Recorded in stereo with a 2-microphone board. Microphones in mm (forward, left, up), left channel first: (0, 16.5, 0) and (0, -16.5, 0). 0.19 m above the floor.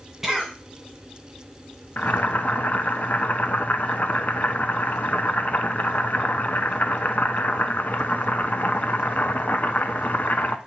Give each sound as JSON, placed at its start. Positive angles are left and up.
{"t": 0.2, "sound": "a cough", "side_deg": -10, "distance_m": 1.6}
{"t": 2.0, "sound": "boiling", "side_deg": 60, "distance_m": 0.6}